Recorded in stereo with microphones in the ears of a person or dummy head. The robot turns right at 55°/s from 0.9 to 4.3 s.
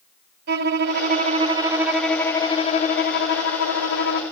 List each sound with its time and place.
0.5 s a violin: 55° right, 1.3 m; by 4.2 s 125° left, 1.3 m